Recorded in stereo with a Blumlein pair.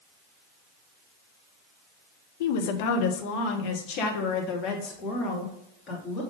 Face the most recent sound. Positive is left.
turn(degrees=30)